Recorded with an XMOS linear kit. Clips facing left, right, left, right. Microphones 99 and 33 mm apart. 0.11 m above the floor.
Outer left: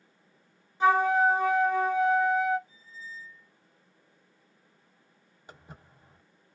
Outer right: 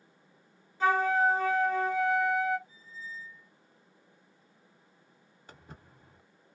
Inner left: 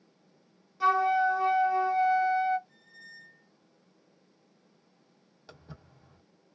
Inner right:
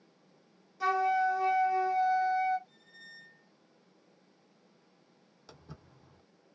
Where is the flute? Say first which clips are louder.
Outer left 3 dB, inner left 4 dB; 20° left (ahead or behind), 1.4 m.